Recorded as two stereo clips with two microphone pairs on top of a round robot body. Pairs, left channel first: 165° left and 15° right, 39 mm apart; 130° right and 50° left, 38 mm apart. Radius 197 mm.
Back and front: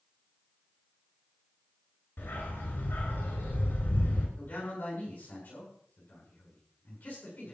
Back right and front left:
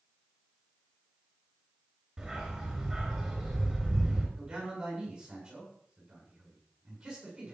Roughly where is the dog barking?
Behind left.